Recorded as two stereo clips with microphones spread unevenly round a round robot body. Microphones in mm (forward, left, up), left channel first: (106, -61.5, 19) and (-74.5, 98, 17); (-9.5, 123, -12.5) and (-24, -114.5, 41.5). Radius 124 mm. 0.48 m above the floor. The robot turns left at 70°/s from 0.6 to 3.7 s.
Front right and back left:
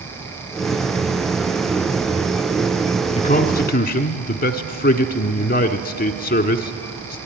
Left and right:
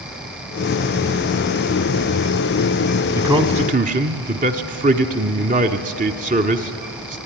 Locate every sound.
3.1 s a man speaking: straight ahead, 1.2 m; by 7.2 s 40° right, 1.2 m